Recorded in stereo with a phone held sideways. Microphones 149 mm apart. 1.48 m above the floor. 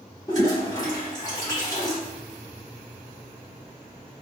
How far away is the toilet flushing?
About 1.6 m.